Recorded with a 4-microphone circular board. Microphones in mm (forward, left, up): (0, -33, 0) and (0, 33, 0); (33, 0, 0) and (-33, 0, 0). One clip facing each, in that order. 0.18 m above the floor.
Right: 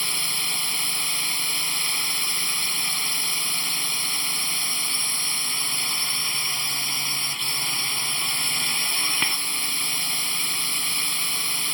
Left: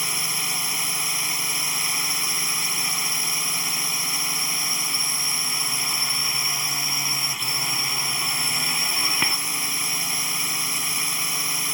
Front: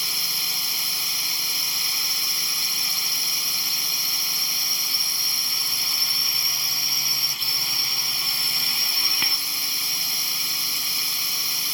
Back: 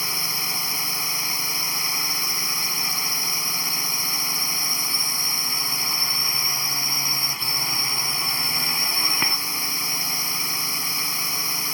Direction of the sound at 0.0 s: 160° left.